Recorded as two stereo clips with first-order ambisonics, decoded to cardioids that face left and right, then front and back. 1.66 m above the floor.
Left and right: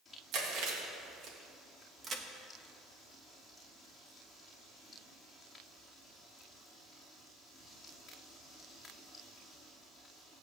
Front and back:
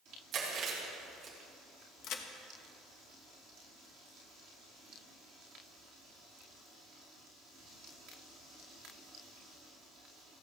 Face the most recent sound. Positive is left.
turn(degrees=-25)